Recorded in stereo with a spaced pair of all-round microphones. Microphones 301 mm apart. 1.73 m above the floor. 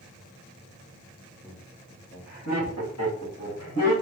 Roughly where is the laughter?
Left.